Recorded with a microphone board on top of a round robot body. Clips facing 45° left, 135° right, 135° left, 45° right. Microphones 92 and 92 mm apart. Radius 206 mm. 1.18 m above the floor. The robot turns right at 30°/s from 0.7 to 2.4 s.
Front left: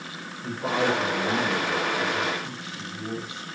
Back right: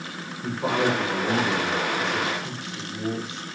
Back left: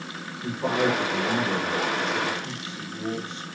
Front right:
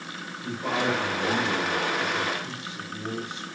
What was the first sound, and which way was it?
A man speaking, 175° left.